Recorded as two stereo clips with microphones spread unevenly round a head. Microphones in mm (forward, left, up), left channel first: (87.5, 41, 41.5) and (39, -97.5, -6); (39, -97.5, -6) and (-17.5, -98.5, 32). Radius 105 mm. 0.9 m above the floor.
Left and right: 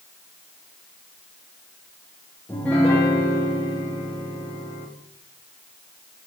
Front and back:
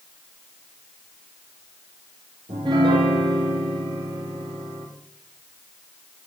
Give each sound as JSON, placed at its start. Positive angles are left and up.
{"t": 2.5, "sound": "a piano", "azimuth_deg": 160, "distance_m": 1.2}